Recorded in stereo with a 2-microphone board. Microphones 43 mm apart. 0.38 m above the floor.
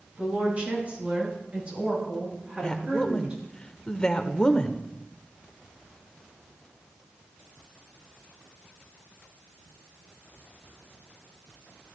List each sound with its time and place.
0.2 s a woman speaking: 35° right (ahead or behind), 7 m; by 3.4 s 25° right (ahead or behind), 8 m
2.6 s a woman speaking: 20° left (ahead or behind), 0.8 m